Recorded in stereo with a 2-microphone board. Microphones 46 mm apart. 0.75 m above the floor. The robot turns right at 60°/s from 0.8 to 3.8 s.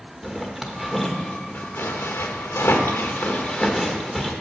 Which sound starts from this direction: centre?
A zipper, at 0.2 s.